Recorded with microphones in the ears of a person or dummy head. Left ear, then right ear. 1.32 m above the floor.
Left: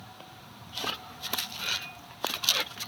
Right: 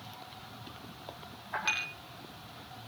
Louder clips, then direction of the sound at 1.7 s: Right 3 dB; 30° right (ahead or behind).